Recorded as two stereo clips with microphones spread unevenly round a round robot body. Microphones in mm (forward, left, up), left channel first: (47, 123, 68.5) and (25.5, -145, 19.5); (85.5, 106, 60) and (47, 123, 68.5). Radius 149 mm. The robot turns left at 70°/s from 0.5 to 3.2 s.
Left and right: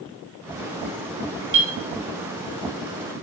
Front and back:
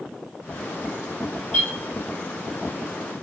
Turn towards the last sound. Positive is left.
turn(degrees=135)